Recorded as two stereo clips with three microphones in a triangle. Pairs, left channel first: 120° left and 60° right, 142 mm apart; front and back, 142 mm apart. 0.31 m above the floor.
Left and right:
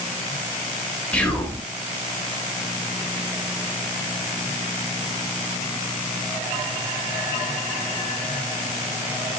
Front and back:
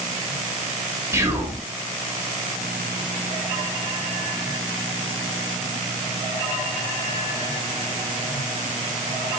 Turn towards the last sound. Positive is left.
turn(degrees=180)